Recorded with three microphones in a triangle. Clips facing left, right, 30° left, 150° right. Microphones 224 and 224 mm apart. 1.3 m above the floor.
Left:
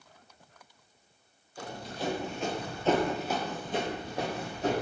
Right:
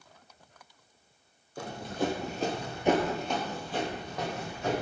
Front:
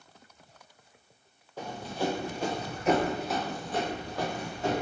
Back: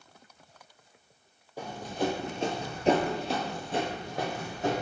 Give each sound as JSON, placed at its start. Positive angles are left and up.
{"t": 1.6, "sound": "running footsteps", "azimuth_deg": -75, "distance_m": 2.5}